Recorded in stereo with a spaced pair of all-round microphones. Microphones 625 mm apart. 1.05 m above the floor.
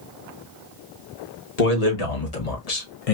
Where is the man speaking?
75° left (ahead or behind), 1.6 m; by 3.1 s 60° left (ahead or behind), 0.9 m.